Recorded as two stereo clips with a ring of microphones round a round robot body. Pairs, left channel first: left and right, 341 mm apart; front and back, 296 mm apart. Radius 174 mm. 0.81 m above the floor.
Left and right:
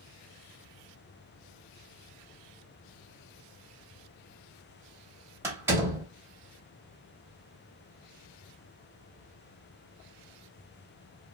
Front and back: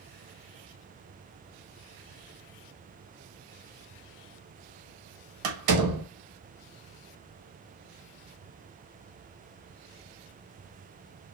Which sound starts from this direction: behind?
A door slam, at 5.4 s.